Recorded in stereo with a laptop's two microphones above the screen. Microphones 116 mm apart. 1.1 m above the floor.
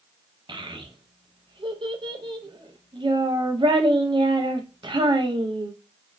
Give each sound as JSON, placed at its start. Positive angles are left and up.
{"t": 0.5, "sound": "a child speaking", "side_deg": -45, "distance_m": 0.5}